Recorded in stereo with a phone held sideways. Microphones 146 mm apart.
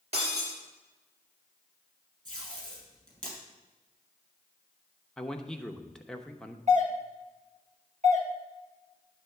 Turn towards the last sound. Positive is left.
turn(degrees=-55)  # may be behind; listen again after turning